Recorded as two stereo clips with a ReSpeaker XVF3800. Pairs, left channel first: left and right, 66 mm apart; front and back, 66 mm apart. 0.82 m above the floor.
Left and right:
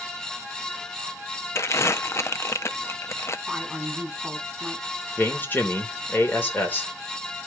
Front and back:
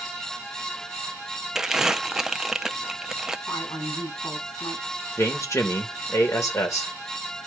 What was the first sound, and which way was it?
Crumpling, 100° left.